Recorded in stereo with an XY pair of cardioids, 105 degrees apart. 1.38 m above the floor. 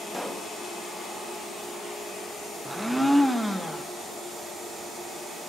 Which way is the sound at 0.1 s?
Straight ahead.